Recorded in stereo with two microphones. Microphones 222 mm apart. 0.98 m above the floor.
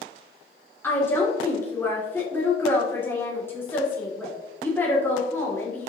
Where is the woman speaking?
10° left (ahead or behind), 2.5 m.